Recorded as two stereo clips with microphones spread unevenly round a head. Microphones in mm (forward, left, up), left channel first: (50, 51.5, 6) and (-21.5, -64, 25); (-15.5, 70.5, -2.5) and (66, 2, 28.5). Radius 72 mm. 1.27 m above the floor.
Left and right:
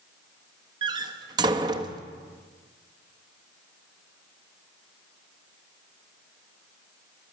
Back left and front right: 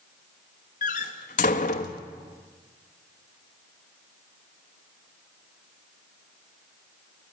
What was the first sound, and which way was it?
A door slam, 175° left.